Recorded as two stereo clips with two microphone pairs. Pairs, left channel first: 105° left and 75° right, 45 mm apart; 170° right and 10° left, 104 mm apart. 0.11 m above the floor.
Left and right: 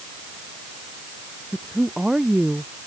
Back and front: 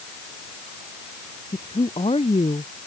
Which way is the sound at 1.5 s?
150° right.